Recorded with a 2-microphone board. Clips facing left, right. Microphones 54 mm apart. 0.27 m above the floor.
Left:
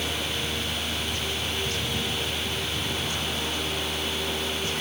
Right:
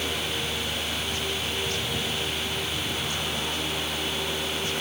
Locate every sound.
Only background noise.